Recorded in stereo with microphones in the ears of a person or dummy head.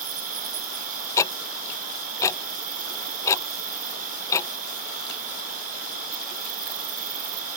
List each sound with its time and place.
0.0 s an insect: 45° right (ahead or behind)
1.2 s ticking: 15° left (ahead or behind)